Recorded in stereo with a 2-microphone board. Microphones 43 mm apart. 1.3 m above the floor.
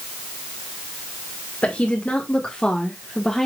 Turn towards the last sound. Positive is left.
turn(degrees=10)  # may be behind; listen again after turning